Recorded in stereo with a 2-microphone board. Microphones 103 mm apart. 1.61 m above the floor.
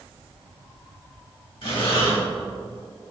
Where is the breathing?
60° left (ahead or behind), 2 m.